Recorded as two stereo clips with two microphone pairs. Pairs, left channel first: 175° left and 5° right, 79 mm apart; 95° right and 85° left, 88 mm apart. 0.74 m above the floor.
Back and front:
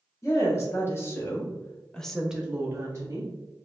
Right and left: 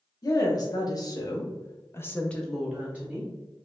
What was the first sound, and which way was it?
A woman speaking, 135° right.